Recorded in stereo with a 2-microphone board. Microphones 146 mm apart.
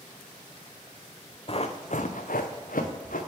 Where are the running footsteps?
40° left (ahead or behind), 0.8 m; by 3.2 s 75° left (ahead or behind), 1.2 m.